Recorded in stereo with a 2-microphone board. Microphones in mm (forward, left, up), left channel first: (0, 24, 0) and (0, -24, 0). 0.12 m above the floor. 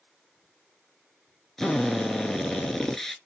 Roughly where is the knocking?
I don't hear knocking.